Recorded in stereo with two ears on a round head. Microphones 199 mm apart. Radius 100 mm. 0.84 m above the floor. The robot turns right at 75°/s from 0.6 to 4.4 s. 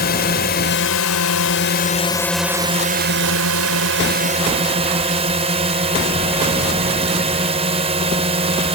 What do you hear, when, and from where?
0.0 s a drone: 45° left; by 8.8 s 30° right